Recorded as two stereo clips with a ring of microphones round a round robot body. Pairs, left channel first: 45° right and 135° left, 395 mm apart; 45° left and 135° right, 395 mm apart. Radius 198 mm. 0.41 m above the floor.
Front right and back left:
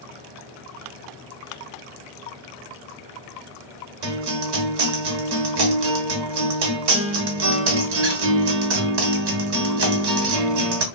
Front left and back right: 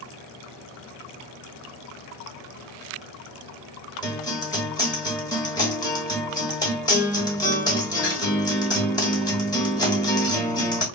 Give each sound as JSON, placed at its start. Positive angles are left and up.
{"t": 4.0, "sound": "a guitar", "azimuth_deg": 125, "distance_m": 0.9}